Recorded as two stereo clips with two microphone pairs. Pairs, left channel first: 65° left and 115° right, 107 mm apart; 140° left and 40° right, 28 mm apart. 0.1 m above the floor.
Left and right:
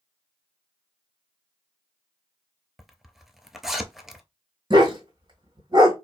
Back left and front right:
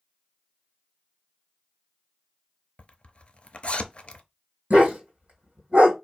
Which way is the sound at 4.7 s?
70° right.